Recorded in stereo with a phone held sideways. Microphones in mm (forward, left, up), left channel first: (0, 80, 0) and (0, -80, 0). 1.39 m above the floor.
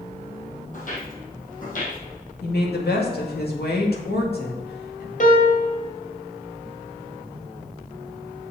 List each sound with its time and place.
0.7 s footsteps: 55° left (ahead or behind), 2.5 m
2.4 s a woman speaking: 85° left, 2 m
5.2 s a piano: 60° left (ahead or behind), 1.9 m